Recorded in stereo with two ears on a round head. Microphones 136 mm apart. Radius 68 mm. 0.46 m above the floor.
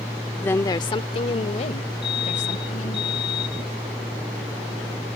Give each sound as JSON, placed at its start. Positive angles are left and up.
{"t": 0.4, "sound": "a woman speaking", "side_deg": 10}
{"t": 2.0, "sound": "a fire alarm", "side_deg": 30}